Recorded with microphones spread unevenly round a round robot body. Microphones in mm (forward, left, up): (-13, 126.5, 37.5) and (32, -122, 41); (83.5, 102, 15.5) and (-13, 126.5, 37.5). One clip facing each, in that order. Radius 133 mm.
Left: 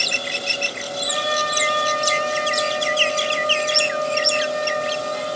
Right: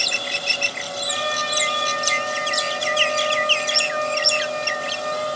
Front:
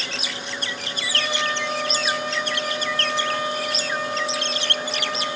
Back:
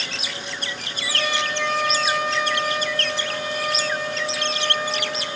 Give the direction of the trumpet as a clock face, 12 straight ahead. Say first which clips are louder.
Left 3 dB, back 1 dB; 7 o'clock.